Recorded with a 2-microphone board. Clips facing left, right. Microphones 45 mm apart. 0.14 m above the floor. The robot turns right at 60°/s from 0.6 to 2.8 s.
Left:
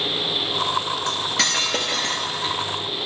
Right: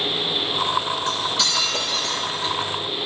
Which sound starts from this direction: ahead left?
Cutlery clinking, at 1.1 s.